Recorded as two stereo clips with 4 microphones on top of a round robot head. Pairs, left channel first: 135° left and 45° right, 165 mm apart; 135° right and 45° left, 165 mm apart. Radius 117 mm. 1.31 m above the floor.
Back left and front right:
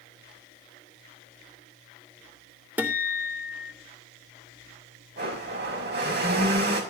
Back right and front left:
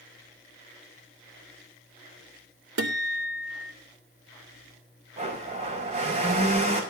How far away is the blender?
About 5.5 m.